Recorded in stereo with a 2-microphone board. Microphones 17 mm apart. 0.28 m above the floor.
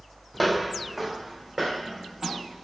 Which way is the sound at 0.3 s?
Centre (ahead or behind).